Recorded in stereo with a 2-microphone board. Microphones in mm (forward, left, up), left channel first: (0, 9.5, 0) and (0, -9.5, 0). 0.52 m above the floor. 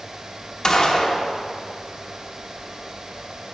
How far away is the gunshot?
About 0.9 m.